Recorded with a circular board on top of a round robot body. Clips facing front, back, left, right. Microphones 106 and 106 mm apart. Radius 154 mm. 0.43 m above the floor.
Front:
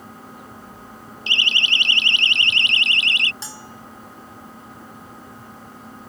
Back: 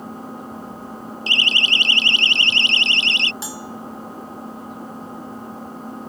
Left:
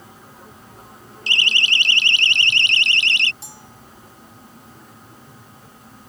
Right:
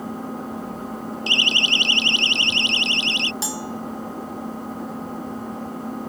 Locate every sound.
0.0 s an engine running: 125° right
1.3 s a siren: 130° left; by 3.3 s 120° left
3.4 s a bell: 100° right